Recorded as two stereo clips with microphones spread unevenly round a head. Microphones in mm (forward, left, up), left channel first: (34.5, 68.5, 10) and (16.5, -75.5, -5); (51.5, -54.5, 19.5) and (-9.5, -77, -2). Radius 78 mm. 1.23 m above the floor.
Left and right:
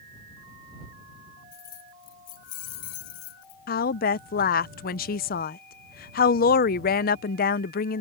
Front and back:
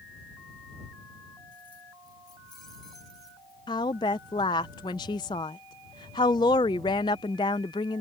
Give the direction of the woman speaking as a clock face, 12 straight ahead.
10 o'clock.